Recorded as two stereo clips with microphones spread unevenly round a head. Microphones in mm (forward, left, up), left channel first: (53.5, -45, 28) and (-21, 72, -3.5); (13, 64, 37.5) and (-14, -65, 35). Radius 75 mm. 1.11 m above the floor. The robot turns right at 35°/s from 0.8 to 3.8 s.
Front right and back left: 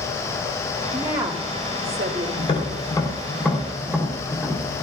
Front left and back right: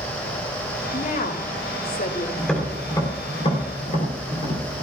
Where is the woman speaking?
45° left, 2 m; by 2.3 s 95° left, 2 m.